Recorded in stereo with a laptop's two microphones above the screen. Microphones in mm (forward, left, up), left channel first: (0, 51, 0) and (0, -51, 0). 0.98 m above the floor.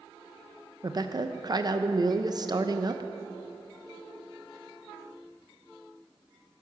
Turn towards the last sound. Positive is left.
turn(degrees=-40)  # may be behind; listen again after turning